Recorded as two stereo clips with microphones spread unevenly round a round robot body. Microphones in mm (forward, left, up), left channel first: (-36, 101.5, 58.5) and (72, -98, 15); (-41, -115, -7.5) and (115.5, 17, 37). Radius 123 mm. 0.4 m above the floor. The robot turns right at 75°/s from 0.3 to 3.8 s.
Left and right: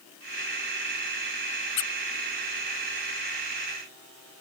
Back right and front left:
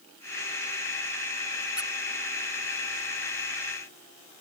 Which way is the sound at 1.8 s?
125° left.